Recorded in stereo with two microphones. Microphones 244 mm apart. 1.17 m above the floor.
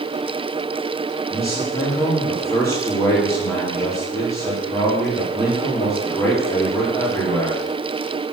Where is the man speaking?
10° left (ahead or behind), 3 m.